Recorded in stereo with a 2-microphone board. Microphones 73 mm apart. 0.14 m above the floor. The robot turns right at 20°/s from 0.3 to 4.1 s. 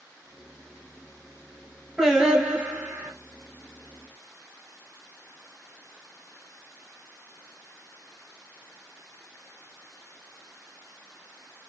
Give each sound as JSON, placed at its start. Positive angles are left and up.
{"t": 2.0, "sound": "singing", "side_deg": -10, "distance_m": 1.5}